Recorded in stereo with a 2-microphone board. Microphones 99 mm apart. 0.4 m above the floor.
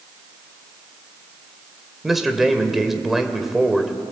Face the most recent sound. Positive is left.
turn(degrees=0)  # may be behind; listen again after turning